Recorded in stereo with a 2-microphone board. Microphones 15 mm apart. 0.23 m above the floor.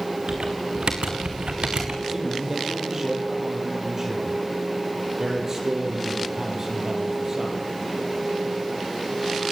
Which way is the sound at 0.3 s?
75° right (ahead or behind).